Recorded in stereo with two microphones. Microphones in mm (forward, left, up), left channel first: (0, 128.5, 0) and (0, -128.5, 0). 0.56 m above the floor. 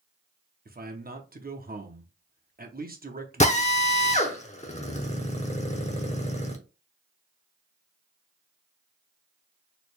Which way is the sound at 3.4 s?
25° left (ahead or behind).